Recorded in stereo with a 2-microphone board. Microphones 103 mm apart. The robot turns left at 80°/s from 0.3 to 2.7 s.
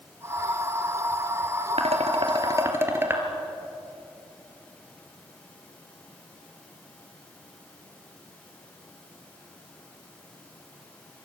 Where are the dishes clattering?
75° right (ahead or behind), 3 m; by 3.2 s 20° right (ahead or behind), 3 m.